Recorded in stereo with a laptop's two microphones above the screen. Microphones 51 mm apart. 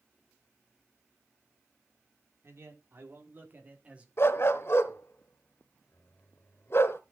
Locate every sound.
2.4 s a man speaking: 55° right (ahead or behind), 3 m; by 4.1 s 20° right (ahead or behind), 1.9 m
4.2 s a dog barking: 55° left (ahead or behind), 1.0 m